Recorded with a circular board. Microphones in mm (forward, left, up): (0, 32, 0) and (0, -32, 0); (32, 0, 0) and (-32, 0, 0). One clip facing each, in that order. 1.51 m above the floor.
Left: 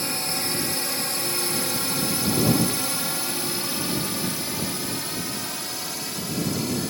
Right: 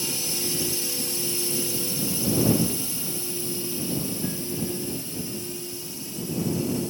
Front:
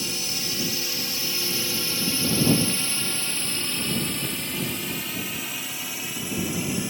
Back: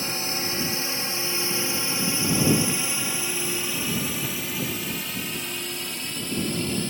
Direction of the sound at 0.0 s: 125° left.